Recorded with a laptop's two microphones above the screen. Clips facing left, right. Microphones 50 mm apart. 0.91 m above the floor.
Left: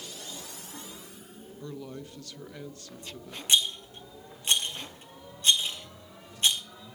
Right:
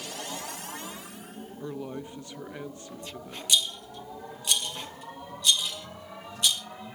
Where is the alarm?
No alarm in this recording.